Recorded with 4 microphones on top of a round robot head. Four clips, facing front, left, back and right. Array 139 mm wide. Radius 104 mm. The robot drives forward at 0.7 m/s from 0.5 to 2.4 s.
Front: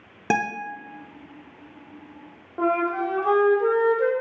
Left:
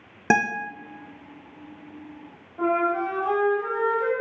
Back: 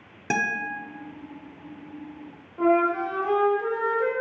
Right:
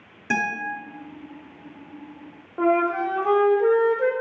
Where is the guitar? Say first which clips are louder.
Left 3 dB, front 3 dB; 55° left, 0.6 m; by 0.7 s 70° left, 0.6 m.